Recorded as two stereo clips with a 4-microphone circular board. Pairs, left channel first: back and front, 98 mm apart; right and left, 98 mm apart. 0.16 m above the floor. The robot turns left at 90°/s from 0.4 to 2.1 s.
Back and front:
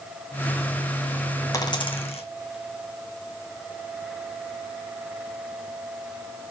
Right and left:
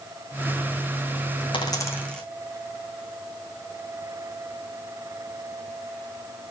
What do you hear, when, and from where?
1.5 s a dropped coin: 120° right, 1.5 m; by 2.2 s 170° right, 1.5 m